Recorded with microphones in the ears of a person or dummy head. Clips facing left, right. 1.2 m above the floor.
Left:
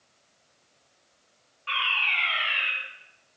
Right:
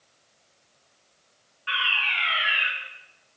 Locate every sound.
1.7 s a fire alarm: 10° right (ahead or behind), 8.5 m